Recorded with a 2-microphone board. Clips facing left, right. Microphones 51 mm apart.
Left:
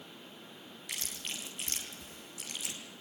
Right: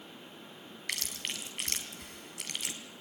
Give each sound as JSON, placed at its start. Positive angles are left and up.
{"t": 0.9, "sound": "chewing", "side_deg": -60, "distance_m": 3.0}